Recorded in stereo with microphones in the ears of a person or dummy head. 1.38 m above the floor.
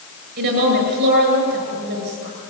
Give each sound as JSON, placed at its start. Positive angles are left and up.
{"t": 0.4, "sound": "a woman speaking", "side_deg": -60, "distance_m": 7.0}